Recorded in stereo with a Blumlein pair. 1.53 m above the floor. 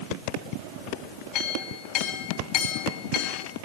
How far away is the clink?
About 3.5 m.